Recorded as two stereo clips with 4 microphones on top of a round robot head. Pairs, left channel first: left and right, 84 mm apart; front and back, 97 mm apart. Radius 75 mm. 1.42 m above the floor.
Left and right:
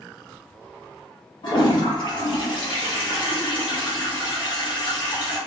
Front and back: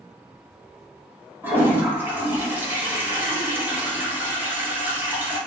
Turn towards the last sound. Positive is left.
turn(degrees=110)